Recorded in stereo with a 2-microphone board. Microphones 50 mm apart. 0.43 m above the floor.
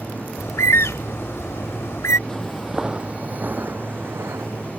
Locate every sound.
0.4 s a bird: 75° left (ahead or behind)
2.3 s footsteps: 15° left (ahead or behind); by 4.7 s 60° right (ahead or behind)